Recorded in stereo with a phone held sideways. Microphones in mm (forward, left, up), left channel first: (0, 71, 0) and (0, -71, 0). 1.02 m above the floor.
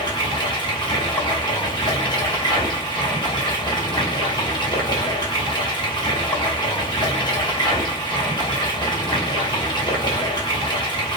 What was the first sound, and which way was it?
Running water, 35° left (ahead or behind).